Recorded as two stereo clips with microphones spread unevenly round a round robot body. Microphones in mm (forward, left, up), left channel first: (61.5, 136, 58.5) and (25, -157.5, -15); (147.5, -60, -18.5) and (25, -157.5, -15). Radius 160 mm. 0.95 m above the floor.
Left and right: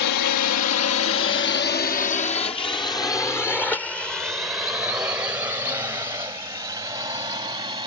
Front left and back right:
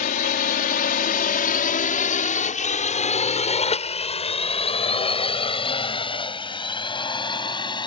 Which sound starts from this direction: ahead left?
A drone, at 0.0 s.